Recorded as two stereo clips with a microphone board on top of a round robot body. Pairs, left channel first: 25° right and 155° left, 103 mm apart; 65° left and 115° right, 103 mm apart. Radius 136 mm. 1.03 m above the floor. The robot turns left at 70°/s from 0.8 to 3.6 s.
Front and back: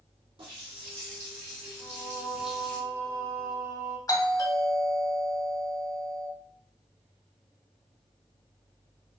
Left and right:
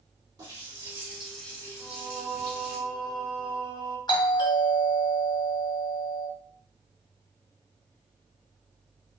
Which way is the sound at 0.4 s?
165° right.